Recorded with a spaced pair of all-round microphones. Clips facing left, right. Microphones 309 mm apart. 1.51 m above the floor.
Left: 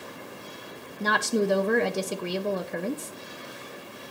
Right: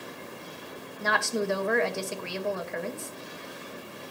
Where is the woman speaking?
45° left (ahead or behind), 0.8 m.